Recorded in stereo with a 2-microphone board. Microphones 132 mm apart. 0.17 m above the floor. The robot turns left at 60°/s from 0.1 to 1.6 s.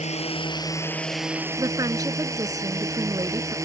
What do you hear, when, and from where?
0.0 s a drone: 65° left; by 3.6 s 25° right
1.6 s a woman speaking: 25° right (ahead or behind)